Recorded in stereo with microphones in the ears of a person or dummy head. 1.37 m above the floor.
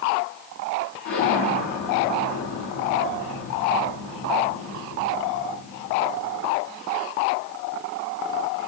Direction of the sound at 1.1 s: 55° left (ahead or behind).